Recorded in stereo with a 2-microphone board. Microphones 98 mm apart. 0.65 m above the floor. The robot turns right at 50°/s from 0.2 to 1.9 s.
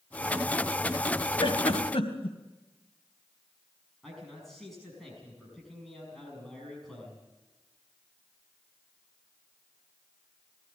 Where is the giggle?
70° left (ahead or behind), 2 m; by 2.4 s 85° left, 2 m.